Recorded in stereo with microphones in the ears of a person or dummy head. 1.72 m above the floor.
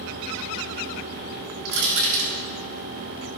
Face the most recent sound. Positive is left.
turn(degrees=-85)